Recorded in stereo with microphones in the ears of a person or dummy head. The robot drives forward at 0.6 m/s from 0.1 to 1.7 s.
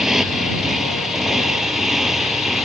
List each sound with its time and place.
0.0 s a motorcycle: 5° right (ahead or behind)